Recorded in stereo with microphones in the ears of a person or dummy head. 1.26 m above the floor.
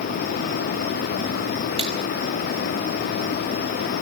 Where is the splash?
25° right (ahead or behind), 2.5 m.